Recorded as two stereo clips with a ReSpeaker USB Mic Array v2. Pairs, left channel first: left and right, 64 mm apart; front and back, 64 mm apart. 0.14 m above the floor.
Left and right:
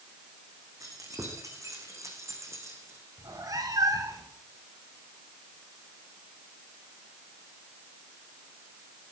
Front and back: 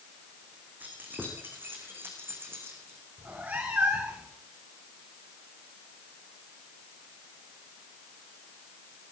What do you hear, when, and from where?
0.8 s keys jangling: 120° right, 7.5 m; by 3.0 s 130° right, 7.5 m
3.2 s a cat meowing: 115° right, 4.5 m